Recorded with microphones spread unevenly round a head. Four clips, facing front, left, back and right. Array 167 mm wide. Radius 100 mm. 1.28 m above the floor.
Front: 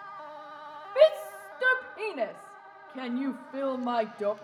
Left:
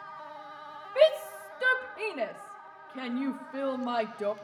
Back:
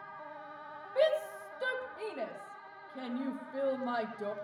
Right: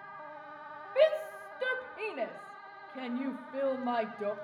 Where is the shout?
5° right, 2 m.